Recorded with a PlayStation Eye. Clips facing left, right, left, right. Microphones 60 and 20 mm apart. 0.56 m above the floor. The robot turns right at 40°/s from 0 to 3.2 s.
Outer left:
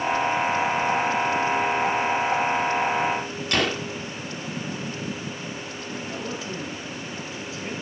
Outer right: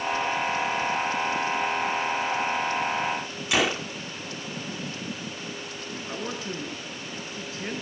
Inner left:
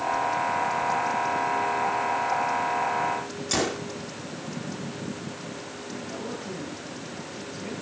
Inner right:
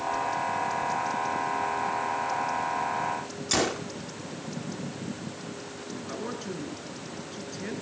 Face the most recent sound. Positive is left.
turn(degrees=-45)  # may be behind; listen again after turning